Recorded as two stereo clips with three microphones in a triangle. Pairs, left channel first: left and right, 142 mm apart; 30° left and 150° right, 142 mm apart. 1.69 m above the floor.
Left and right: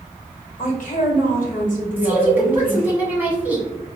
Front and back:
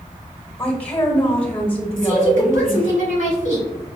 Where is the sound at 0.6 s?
110° left, 1.2 m.